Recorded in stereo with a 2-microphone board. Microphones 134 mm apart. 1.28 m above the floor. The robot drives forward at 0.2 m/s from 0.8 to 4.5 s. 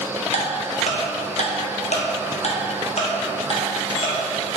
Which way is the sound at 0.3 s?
60° left (ahead or behind).